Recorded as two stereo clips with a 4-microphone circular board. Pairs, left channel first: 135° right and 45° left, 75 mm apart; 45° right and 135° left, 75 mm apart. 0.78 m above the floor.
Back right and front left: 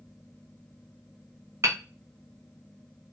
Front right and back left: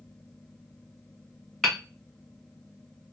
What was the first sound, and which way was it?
Hammering, 40° left.